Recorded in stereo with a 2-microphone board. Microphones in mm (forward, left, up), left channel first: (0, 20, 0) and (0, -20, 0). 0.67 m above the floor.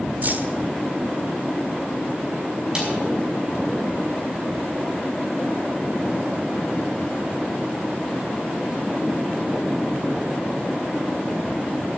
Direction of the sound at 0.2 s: 45° right (ahead or behind).